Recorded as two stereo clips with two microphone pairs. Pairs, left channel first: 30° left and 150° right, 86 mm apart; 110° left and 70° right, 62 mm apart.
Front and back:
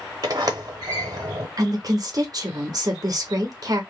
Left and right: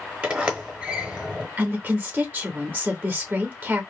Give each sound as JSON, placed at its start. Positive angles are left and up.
{"t": 0.2, "sound": "a sliding door", "azimuth_deg": -140, "distance_m": 0.7}
{"t": 1.6, "sound": "a woman speaking", "azimuth_deg": -125, "distance_m": 0.6}